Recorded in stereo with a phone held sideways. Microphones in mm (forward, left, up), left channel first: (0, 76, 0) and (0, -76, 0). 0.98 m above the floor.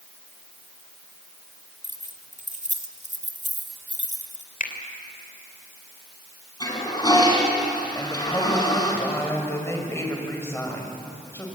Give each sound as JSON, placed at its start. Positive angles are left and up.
{"t": 1.8, "sound": "keys jangling", "side_deg": -50, "distance_m": 1.9}
{"t": 4.6, "sound": "a finger snap", "side_deg": 60, "distance_m": 3.0}
{"t": 6.6, "sound": "a toilet flushing", "side_deg": 30, "distance_m": 5.0}
{"t": 8.0, "sound": "a woman speaking", "side_deg": 15, "distance_m": 5.0}